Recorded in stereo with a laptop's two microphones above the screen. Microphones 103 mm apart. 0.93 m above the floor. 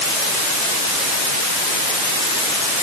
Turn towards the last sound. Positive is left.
No sound to turn to.